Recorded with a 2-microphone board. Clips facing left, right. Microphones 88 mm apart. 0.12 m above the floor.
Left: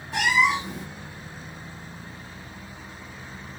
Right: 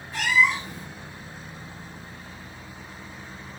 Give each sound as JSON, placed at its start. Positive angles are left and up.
{"t": 0.1, "sound": "a cat meowing", "side_deg": 80, "distance_m": 1.1}